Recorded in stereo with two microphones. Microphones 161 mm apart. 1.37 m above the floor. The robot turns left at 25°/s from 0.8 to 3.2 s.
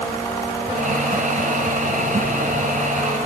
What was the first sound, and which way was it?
Only background noise.